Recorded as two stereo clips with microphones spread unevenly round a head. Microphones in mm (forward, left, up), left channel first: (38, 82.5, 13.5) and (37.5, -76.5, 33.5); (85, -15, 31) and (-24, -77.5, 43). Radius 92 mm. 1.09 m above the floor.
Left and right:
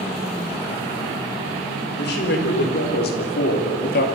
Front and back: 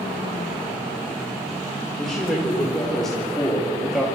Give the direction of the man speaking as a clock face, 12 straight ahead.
8 o'clock.